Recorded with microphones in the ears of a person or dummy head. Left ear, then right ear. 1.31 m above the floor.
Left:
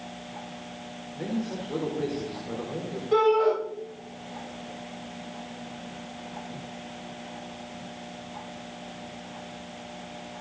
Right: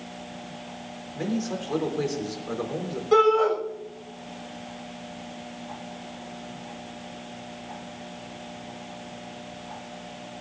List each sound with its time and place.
1.1 s a man speaking: 75° right (ahead or behind), 4.5 m
3.1 s a shout: 45° right (ahead or behind), 7.5 m